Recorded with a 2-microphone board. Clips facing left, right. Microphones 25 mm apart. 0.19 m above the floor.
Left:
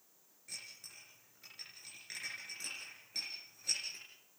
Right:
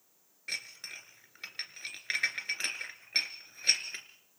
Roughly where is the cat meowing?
I don't hear a cat meowing.